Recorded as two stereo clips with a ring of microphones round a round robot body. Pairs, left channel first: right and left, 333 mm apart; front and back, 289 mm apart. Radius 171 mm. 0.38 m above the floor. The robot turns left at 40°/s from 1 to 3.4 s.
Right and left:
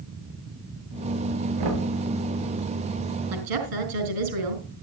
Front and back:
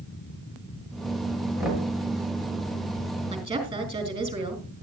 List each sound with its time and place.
1.6 s knocking: 95° left, 7.5 m; by 1.9 s 85° left, 7.5 m
3.3 s a woman speaking: 105° left, 4 m